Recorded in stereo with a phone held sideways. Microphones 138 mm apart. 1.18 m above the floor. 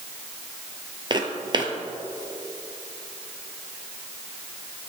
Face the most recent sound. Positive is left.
turn(degrees=-35)  # may be behind; listen again after turning